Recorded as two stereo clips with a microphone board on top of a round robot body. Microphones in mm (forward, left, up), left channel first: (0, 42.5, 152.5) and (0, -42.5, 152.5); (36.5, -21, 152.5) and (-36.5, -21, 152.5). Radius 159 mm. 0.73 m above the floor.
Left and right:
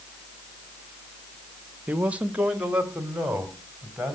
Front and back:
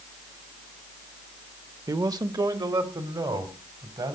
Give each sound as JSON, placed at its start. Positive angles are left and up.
{"t": 1.9, "sound": "a man speaking", "azimuth_deg": -160, "distance_m": 0.9}